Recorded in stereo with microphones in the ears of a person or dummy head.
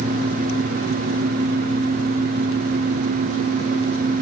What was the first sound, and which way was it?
Only background noise.